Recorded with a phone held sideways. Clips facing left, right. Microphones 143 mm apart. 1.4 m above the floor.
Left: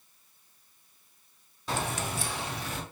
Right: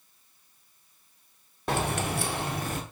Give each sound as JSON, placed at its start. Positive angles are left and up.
{"t": 1.7, "sound": "keys jangling", "side_deg": -65, "distance_m": 0.8}